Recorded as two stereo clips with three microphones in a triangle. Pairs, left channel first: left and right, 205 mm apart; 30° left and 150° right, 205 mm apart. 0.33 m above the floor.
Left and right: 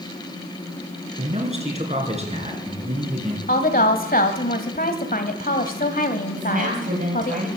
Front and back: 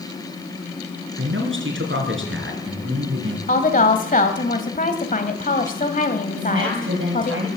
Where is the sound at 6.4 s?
140° right, 8 m.